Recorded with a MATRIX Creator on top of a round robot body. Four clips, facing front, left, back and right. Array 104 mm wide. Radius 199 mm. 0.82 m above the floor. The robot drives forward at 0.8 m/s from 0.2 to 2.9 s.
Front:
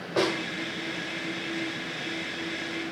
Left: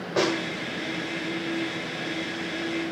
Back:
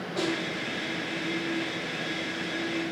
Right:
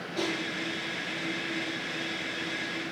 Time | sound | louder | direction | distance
0.2 | a snare drum | left 8 dB, front 4 dB | 55° left | 1.6 m